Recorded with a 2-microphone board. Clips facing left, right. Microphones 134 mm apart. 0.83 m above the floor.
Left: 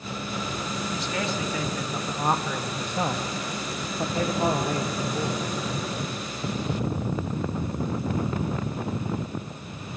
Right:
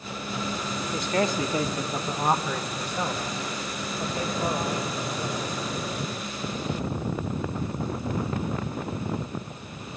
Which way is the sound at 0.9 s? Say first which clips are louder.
Right 6 dB; 50° right (ahead or behind).